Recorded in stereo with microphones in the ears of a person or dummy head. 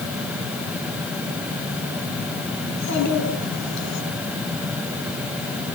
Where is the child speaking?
85° left, 9.5 m; by 4.0 s 80° left, 8.5 m.